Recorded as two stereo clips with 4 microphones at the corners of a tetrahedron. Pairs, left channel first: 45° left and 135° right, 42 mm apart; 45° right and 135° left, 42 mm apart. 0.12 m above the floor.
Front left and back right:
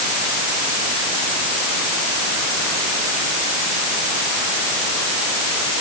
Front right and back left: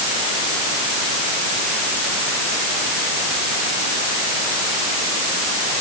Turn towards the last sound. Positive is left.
No sound to turn to.